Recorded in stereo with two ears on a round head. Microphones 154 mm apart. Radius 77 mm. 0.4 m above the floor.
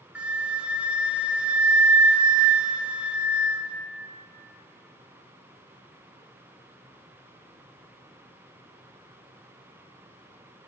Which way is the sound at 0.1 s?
10° right (ahead or behind).